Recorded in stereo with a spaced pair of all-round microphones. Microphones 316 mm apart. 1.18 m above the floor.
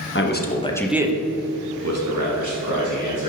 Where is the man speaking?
40° left (ahead or behind), 1.0 m; by 3.3 s 80° right, 2 m.